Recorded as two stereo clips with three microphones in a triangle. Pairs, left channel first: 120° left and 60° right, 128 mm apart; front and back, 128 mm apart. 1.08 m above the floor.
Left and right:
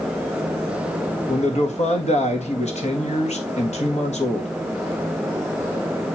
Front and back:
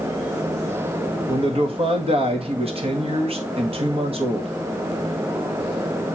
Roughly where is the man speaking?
Behind left.